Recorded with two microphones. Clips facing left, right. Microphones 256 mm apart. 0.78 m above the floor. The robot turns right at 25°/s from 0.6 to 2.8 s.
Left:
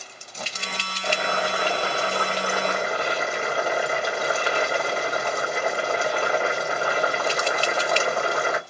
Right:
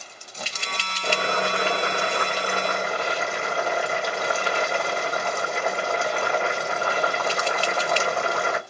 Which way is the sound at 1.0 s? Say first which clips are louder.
Right 1 dB; 40° right.